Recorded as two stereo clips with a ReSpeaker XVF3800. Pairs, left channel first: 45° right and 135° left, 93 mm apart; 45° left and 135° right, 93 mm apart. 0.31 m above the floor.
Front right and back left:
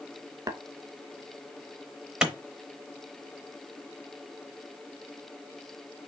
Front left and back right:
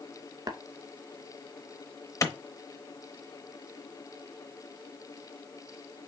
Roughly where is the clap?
Ahead left.